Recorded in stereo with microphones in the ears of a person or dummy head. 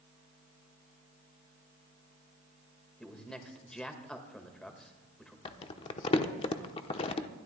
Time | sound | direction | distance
3.0 | a man speaking | 5° left (ahead or behind) | 1.6 m
5.5 | crumpling | 25° left (ahead or behind) | 0.8 m